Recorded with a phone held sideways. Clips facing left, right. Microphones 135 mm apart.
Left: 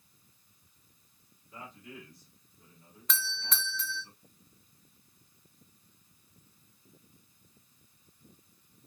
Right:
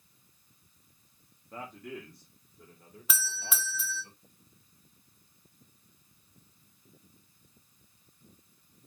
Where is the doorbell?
5° right (ahead or behind), 0.8 m.